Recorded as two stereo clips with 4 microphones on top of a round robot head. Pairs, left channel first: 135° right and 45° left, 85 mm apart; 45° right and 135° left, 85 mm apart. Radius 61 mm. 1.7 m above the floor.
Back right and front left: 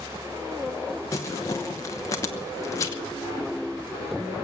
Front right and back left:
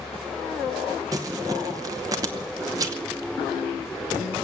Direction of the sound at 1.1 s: 175° left.